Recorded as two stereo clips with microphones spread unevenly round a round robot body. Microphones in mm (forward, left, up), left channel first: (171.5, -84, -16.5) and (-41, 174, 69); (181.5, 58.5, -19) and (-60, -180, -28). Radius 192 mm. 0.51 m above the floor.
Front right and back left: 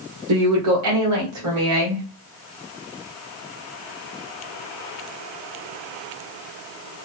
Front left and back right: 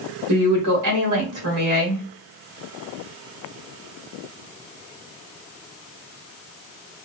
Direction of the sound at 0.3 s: Straight behind.